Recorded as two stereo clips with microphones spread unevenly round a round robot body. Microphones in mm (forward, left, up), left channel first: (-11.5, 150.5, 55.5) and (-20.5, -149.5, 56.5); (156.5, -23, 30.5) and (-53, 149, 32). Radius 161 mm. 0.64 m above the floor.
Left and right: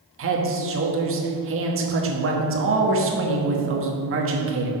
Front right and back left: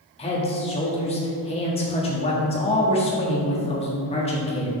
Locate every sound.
0.2 s a man speaking: 95° right, 1.2 m